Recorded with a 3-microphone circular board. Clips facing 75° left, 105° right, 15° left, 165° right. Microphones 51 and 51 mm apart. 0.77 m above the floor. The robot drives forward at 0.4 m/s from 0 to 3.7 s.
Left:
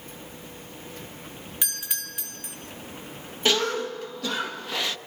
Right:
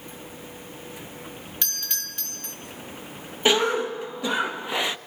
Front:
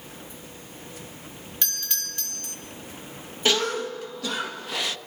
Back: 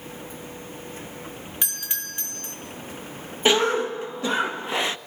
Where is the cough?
140° right, 0.9 m; by 5.0 s 150° right, 0.9 m.